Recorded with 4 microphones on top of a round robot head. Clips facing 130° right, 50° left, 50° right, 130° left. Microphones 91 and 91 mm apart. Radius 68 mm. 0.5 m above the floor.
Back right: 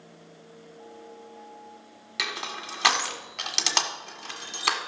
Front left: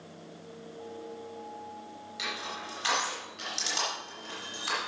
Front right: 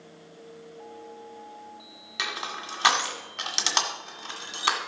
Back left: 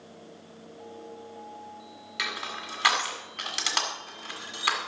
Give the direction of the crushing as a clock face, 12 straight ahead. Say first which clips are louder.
Back right 4 dB, front right 2 dB; 4 o'clock.